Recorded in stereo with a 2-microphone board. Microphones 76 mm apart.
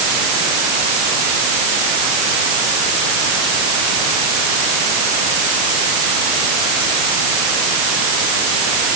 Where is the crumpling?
No crumpling in this recording.